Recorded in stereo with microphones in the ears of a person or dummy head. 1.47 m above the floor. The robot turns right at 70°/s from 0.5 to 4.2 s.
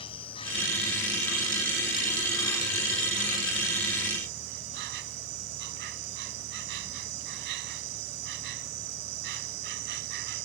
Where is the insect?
30° left; by 10.4 s 70° right.